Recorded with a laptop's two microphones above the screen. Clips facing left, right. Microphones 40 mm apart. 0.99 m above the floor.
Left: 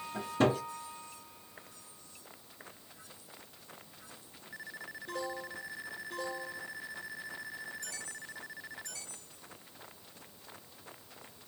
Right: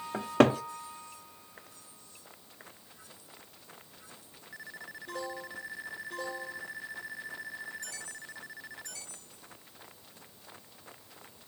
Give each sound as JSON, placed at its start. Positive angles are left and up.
{"t": 0.1, "sound": "a cupboard door", "side_deg": -80, "distance_m": 0.6}